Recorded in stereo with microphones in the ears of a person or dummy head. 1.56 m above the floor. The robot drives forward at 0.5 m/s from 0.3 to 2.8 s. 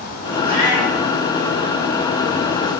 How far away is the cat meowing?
About 1.5 m.